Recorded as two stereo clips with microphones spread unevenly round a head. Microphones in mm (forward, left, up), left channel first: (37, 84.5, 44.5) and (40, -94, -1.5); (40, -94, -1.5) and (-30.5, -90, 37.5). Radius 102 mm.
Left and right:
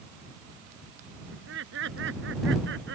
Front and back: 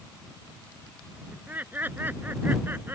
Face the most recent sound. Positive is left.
turn(degrees=-125)